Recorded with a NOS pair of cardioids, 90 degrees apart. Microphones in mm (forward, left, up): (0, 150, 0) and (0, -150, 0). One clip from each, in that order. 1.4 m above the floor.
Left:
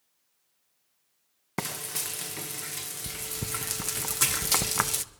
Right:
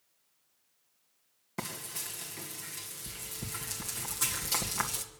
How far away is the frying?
About 1.8 m.